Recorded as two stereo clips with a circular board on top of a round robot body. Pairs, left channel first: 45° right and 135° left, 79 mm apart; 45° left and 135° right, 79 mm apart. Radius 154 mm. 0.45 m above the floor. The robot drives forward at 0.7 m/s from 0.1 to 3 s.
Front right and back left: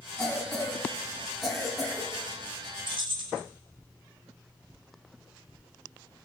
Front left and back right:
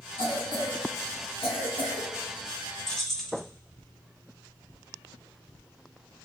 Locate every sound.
0.2 s a cough: 40° left, 5 m; by 2.1 s 50° left, 4 m
2.9 s keys jangling: 130° left, 1.8 m